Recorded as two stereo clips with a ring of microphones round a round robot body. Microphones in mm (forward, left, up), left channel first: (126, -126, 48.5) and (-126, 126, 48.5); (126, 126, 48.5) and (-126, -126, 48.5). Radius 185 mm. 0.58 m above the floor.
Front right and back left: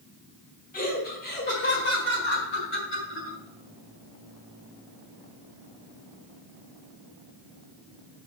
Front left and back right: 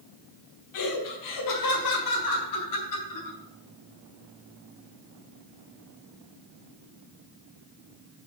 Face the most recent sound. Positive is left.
turn(degrees=10)